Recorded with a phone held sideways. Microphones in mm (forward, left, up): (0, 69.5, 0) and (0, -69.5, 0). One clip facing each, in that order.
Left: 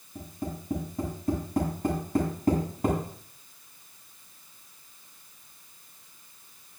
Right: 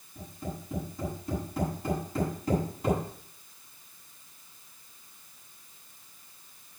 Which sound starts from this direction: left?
Tapping, at 0.1 s.